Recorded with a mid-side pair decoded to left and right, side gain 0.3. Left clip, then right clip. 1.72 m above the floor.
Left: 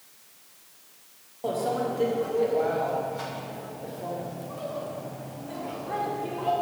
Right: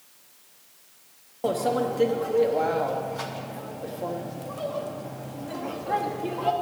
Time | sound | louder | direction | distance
1.4 | a microwave | right 3 dB | 65° right | 1.0 m